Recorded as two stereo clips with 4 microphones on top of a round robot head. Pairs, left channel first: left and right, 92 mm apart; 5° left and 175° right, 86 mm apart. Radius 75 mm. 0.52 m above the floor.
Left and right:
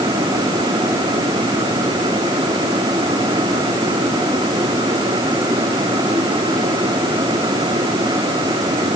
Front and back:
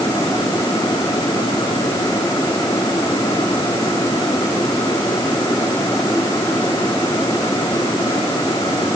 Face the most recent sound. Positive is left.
No sound to turn to.